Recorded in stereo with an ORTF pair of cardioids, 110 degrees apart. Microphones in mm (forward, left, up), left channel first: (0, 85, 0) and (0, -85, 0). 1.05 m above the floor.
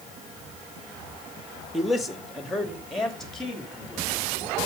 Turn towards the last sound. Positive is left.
turn(degrees=5)